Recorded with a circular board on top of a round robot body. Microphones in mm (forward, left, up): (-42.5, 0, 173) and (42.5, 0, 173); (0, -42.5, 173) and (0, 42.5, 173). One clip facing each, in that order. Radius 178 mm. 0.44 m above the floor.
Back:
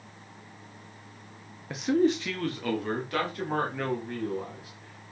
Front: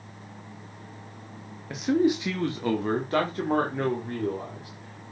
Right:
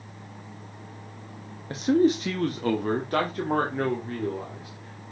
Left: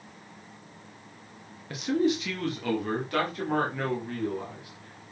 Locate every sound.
1.7 s a man speaking: 95° right, 1.2 m; by 5.1 s 40° right, 3 m